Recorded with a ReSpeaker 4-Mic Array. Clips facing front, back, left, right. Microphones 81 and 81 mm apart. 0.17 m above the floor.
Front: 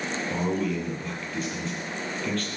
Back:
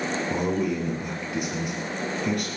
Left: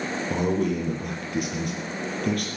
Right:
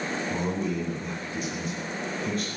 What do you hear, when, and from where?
0.3 s a man speaking: 105° left, 5 m